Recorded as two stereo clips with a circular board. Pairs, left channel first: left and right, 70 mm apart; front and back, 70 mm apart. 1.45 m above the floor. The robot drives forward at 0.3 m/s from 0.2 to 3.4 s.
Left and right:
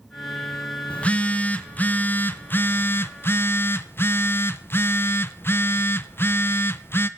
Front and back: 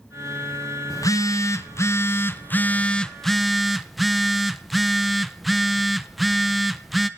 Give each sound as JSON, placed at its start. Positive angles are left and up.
{"t": 0.9, "sound": "a phone buzzing", "azimuth_deg": 20, "distance_m": 0.9}